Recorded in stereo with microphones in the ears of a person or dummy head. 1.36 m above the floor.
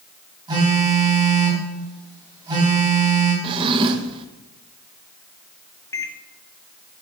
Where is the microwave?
15° left (ahead or behind), 0.6 m.